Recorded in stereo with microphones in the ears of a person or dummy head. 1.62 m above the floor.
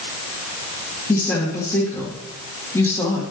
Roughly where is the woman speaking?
Centre.